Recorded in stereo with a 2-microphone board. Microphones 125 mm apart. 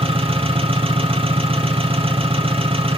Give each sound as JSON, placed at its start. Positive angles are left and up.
{"t": 0.0, "sound": "an engine running", "side_deg": -50, "distance_m": 2.5}